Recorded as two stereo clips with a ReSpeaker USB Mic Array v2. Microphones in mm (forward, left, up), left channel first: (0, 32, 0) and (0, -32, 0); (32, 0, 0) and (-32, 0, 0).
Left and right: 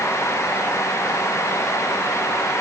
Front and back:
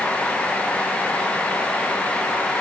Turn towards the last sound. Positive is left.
No sound to turn to.